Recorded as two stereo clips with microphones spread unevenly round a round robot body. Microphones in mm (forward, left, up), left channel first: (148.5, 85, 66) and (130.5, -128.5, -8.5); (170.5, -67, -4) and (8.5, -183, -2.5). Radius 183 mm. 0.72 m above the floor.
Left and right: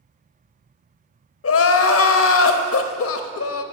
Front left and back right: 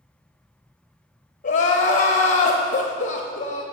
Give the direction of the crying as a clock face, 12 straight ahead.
9 o'clock.